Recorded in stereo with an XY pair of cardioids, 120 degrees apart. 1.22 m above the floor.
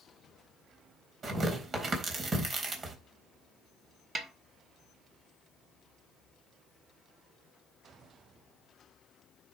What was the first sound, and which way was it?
Tearing paper, 40° right.